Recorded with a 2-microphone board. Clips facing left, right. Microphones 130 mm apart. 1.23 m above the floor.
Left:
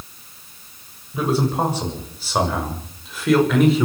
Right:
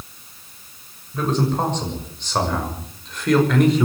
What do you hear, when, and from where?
1.1 s a man speaking: 10° left (ahead or behind), 7 m; by 3.9 s centre (ahead or behind), 5.5 m